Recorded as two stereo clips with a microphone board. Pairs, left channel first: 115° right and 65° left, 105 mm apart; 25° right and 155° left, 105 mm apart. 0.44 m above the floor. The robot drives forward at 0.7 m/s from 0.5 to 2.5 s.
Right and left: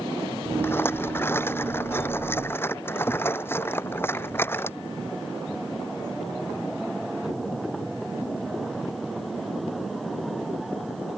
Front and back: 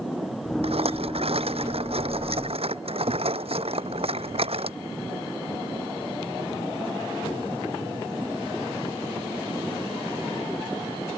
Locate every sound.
0.6 s a rattle: straight behind